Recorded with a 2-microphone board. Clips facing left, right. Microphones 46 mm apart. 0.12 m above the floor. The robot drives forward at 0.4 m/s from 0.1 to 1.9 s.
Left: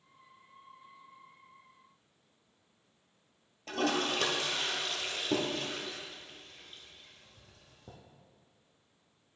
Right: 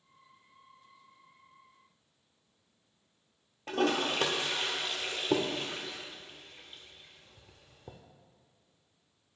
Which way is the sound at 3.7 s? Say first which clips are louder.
Right 2 dB; 20° right (ahead or behind).